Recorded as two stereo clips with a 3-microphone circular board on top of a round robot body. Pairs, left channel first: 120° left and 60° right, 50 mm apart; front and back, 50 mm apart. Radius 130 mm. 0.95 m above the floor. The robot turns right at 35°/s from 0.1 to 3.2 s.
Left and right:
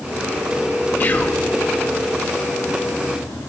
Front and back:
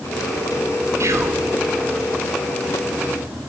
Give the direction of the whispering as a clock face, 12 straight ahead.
6 o'clock.